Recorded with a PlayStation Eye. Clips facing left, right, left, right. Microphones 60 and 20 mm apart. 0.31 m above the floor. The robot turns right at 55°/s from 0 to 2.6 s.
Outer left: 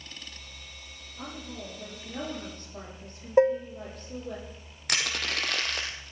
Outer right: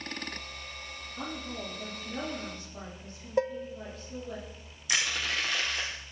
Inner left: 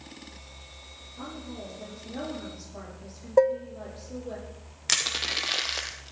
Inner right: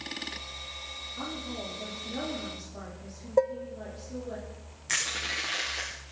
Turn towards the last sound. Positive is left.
turn(degrees=65)  # may be behind; listen again after turning